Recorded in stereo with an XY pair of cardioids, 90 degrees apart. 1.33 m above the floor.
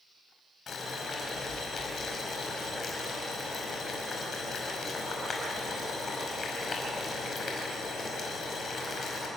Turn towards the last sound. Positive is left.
turn(degrees=60)